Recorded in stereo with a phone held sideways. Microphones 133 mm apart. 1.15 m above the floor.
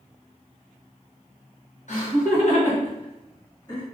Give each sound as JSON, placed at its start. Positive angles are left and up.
{"t": 1.9, "sound": "laughter", "side_deg": 65, "distance_m": 1.1}